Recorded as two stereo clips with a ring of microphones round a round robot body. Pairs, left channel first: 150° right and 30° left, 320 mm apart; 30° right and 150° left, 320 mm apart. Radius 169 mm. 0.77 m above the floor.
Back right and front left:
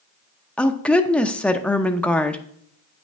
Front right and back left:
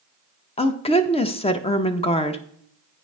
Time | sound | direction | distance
0.6 | a woman speaking | 70° right | 0.6 m